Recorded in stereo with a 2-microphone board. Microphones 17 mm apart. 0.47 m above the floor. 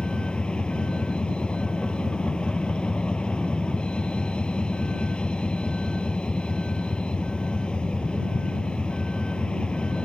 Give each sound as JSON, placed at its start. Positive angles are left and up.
{"t": 0.0, "sound": "a vehicle", "side_deg": 80}